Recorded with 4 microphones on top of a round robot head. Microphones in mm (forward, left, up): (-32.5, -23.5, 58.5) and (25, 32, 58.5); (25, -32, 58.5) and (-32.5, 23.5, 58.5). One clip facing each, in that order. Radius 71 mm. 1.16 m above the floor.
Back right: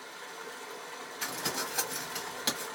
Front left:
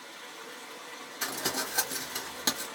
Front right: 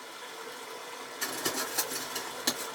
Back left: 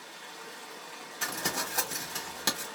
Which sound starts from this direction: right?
Running water, at 0.0 s.